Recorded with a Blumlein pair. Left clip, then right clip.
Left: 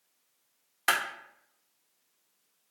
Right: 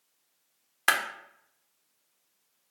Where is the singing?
No singing in this recording.